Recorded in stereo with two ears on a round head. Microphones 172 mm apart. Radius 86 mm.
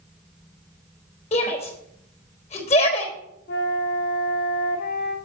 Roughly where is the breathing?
I don't hear breathing.